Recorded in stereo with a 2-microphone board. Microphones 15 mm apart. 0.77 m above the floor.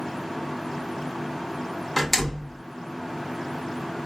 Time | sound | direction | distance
2.0 | a door slam | 10° left (ahead or behind) | 1.6 m